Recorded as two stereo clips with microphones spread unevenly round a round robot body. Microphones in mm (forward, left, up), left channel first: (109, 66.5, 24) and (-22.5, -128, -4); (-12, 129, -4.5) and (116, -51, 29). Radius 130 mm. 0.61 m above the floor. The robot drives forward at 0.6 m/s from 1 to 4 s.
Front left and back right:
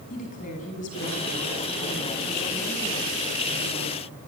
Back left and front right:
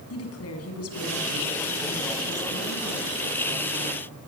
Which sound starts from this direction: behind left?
A woman speaking, at 0.1 s.